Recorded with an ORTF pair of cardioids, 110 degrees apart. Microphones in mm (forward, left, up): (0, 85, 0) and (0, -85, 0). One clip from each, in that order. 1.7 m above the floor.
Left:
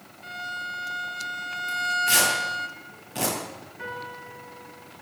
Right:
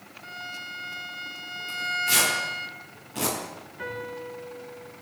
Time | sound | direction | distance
0.2 | a violin | 15° left | 1.2 m
1.7 | tearing paper | 20° left | 10 m
3.8 | a piano | 10° right | 5.5 m